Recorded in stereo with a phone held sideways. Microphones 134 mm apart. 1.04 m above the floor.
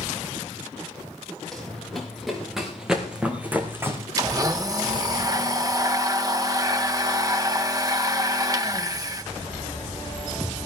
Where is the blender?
25° right (ahead or behind), 1.2 m.